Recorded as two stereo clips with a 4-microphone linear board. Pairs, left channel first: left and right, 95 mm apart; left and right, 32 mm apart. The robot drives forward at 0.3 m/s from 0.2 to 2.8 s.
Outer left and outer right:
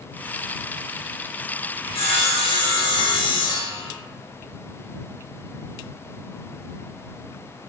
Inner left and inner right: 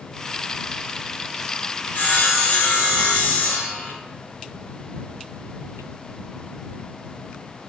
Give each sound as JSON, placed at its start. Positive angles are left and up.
{"t": 1.8, "sound": "sawing", "side_deg": 80, "distance_m": 0.6}